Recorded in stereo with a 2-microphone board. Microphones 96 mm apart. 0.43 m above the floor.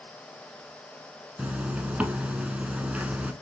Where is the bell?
I don't hear a bell.